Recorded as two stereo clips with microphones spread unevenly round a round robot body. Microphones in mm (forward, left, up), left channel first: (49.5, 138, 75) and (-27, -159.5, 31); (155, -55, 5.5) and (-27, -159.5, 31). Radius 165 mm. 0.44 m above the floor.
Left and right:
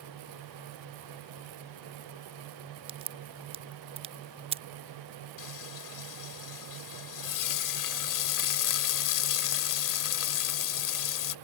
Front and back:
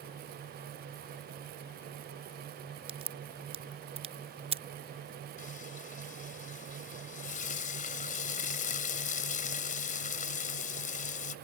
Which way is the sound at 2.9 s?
110° right.